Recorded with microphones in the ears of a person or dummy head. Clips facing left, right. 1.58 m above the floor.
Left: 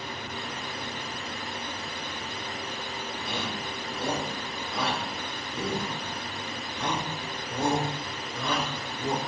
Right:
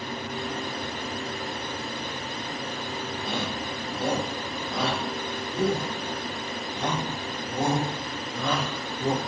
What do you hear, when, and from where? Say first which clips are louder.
3.2 s a shout: right 3 dB; 30° right (ahead or behind), 4.5 m